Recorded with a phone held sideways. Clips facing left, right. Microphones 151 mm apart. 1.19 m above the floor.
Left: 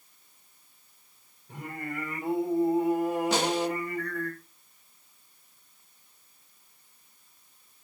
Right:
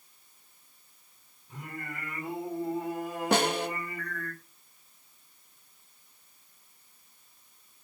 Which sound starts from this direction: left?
Singing, at 1.5 s.